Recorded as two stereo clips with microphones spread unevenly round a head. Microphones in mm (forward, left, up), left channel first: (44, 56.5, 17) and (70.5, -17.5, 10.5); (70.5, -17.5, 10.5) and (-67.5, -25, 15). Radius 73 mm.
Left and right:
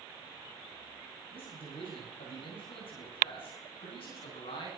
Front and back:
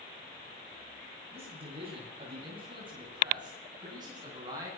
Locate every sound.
1.3 s a man speaking: 130° left, 9.5 m; by 4.7 s 115° left, 10.5 m